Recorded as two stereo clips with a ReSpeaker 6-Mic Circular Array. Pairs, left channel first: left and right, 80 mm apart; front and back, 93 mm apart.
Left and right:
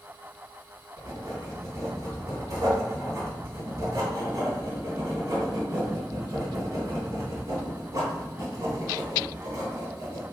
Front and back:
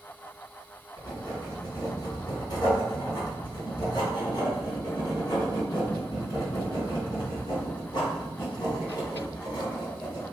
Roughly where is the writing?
Ahead right.